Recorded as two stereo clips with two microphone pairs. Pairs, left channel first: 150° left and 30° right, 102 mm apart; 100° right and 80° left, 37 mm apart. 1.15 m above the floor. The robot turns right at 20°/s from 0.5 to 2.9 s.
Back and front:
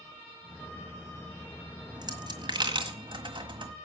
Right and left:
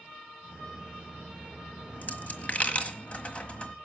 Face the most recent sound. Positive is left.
turn(degrees=-50)